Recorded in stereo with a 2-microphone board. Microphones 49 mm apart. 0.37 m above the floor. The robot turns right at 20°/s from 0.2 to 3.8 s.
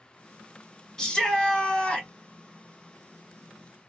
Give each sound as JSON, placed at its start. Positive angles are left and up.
{"t": 1.0, "sound": "a shout", "side_deg": 10, "distance_m": 1.5}